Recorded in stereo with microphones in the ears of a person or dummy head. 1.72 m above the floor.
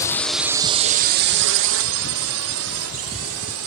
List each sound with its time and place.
0.0 s a drone: 20° left (ahead or behind); by 3.7 s 85° right